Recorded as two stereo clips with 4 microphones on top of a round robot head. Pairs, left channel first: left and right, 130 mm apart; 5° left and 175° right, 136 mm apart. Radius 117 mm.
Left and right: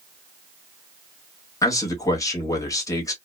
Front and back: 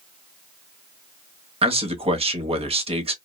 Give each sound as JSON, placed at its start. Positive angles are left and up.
{"t": 1.6, "sound": "a man speaking", "azimuth_deg": 150, "distance_m": 1.1}